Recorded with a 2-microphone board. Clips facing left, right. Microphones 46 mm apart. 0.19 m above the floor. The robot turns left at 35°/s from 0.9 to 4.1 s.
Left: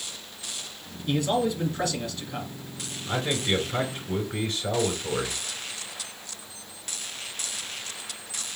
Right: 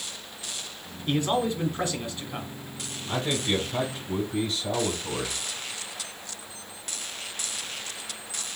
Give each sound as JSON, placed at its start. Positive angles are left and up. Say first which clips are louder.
{"t": 1.1, "sound": "a man speaking", "louder": "even", "azimuth_deg": -105, "distance_m": 1.6}
{"t": 3.1, "sound": "a man speaking", "louder": "left 1 dB", "azimuth_deg": 145, "distance_m": 3.0}